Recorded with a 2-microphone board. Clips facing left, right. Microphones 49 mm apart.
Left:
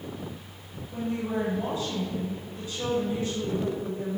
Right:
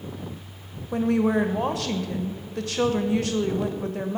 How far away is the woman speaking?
About 1.0 m.